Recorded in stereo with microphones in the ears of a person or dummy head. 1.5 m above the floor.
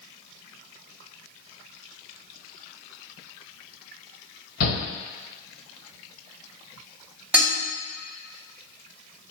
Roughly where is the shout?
Left.